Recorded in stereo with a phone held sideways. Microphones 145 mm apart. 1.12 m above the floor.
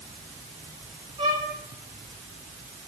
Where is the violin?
35° right (ahead or behind), 6.5 m.